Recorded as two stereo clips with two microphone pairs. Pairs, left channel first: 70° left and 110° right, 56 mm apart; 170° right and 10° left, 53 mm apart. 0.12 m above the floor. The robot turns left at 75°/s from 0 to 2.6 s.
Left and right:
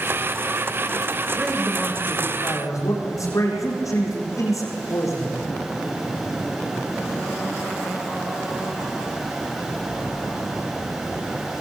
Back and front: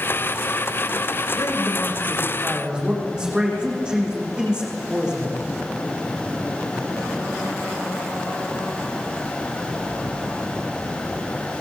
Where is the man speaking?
Straight behind, 8 m; by 5.4 s 85° left, 8 m.